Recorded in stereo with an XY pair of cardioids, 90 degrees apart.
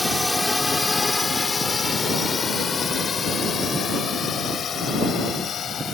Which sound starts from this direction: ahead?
A drone, at 0.0 s.